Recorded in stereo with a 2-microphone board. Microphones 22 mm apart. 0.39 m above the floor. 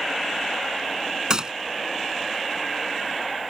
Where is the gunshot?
30° right (ahead or behind).